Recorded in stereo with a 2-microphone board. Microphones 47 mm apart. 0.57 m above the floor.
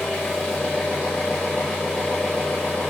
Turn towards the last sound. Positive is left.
turn(degrees=15)  # may be behind; listen again after turning